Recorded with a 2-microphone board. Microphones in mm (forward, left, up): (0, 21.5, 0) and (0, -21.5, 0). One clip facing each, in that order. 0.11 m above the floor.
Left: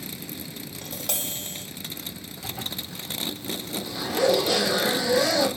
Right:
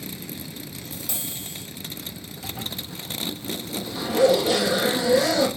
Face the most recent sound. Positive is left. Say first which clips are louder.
# right 1 dB
turn(degrees=-15)  # may be behind; listen again after turning